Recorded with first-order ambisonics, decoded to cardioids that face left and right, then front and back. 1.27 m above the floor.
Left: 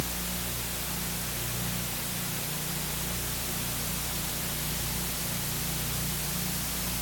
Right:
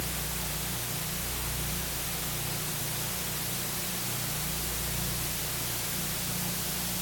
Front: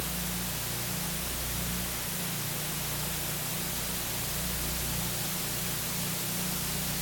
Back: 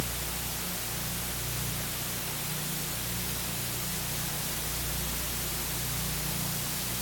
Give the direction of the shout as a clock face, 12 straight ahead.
No shout in this recording.